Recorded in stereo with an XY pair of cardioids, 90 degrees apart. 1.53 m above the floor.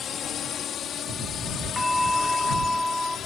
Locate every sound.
0.0 s a drone: 70° left; by 3.3 s 75° left
1.8 s a bell: 10° left